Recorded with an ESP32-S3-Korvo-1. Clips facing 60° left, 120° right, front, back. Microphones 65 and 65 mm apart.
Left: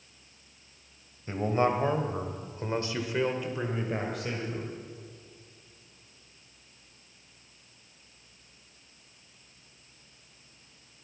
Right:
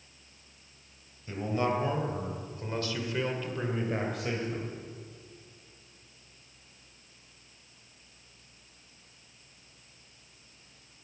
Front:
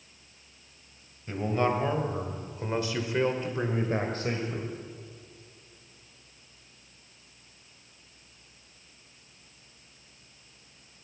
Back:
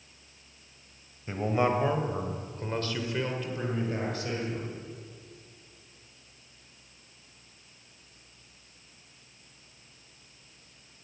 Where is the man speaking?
110° left, 2.5 m; by 4.8 s 35° right, 2.5 m.